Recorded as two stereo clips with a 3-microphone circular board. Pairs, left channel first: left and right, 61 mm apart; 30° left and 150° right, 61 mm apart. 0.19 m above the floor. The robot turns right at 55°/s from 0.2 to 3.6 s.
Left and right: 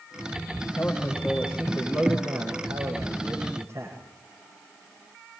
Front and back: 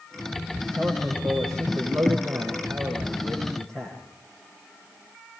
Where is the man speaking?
155° left, 9 m; by 4.0 s 45° right, 9 m.